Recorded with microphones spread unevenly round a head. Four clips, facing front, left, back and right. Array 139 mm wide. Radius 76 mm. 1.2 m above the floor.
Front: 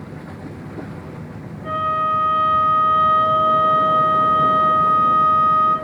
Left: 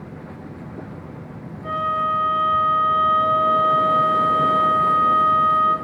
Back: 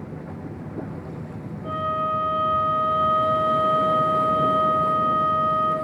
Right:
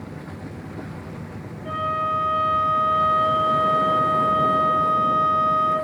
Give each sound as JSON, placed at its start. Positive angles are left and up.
{"t": 1.6, "sound": "a flute", "azimuth_deg": 50, "distance_m": 4.5}